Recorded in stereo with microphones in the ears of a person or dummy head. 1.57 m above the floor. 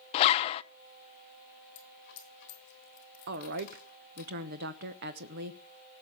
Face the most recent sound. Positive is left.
turn(degrees=-55)  # may be behind; listen again after turning